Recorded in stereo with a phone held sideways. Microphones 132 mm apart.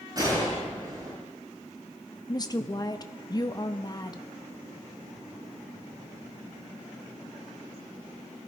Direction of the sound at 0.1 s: 30° right (ahead or behind).